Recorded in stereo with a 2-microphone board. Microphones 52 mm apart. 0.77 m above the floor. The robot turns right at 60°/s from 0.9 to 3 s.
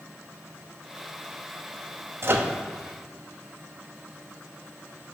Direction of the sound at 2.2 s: 50° right (ahead or behind).